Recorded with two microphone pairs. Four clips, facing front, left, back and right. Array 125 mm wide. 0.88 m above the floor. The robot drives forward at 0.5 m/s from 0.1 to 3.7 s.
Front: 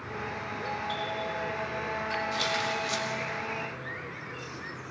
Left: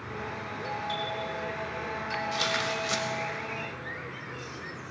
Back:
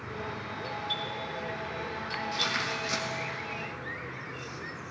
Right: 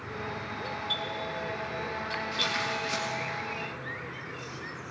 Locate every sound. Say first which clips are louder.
0.6 s a doorbell: left 4 dB, front 4 dB; 30° left, 2.5 m; by 3.3 s 55° left, 1.7 m
2.3 s tearing paper: left 2 dB, front 3 dB; 90° left, 2.5 m; by 3.0 s 100° left, 2.5 m